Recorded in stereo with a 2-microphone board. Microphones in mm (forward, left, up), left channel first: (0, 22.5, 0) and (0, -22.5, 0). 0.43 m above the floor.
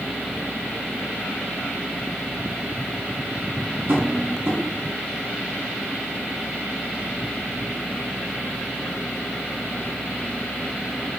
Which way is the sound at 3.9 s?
80° right.